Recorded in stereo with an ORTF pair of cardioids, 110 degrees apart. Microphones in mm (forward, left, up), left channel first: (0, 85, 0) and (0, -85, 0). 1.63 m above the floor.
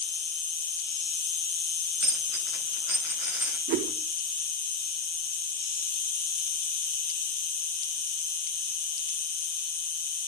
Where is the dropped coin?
10° right, 4.5 m.